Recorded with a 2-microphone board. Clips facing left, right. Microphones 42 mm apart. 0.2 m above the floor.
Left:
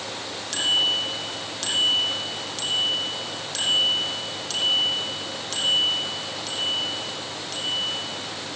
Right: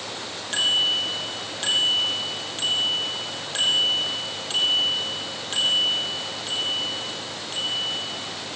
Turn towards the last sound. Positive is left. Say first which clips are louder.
# right 1 dB
turn(degrees=-25)  # may be behind; listen again after turning